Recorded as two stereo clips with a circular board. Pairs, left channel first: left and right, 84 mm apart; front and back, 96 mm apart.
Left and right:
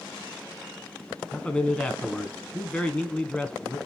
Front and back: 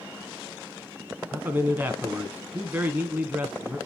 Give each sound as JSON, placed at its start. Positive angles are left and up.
{"t": 1.3, "sound": "a man speaking", "azimuth_deg": 145, "distance_m": 1.4}